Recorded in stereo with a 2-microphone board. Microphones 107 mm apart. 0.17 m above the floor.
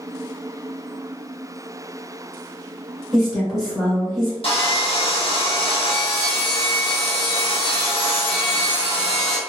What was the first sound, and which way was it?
A woman speaking, 5° left (ahead or behind).